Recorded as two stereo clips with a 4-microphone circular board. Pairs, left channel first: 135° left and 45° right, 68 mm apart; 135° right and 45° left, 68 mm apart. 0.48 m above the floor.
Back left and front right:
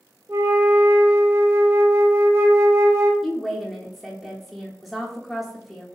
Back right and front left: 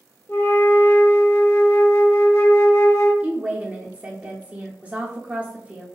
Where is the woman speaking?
50° left, 0.7 m.